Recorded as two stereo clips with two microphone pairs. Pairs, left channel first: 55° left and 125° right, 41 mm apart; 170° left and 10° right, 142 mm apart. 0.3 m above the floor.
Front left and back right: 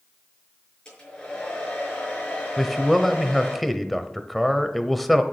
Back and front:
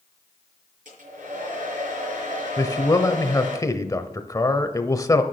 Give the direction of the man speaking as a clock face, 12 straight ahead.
7 o'clock.